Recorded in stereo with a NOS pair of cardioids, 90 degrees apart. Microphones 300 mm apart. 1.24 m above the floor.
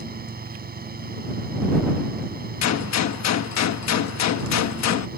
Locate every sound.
0.0 s a fan: 30° right
2.6 s a gunshot: 65° left